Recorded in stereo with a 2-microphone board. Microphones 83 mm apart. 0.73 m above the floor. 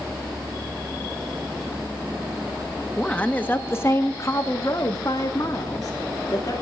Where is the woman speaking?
10° left (ahead or behind), 1.0 m; by 6.5 s 45° left (ahead or behind), 2.0 m.